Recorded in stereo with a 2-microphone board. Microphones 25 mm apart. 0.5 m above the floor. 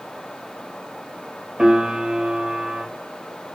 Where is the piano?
40° right (ahead or behind), 2.5 m.